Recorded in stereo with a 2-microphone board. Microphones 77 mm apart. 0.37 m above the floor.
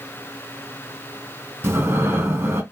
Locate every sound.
1.6 s breathing: 30° right (ahead or behind), 2.5 m